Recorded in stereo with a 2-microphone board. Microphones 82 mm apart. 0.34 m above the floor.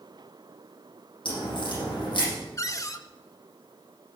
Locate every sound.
1.2 s a crack: 75° left (ahead or behind), 8 m
2.6 s a cupboard door: 40° left (ahead or behind), 0.7 m